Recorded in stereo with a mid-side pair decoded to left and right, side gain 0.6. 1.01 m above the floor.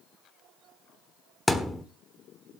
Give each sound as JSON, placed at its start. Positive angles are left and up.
{"t": 1.5, "sound": "a thud", "azimuth_deg": 10, "distance_m": 1.3}